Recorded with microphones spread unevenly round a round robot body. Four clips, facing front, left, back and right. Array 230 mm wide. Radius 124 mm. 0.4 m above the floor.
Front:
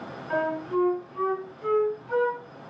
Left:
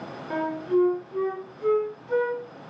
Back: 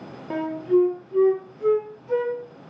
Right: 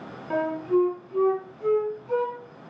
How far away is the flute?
About 2.0 m.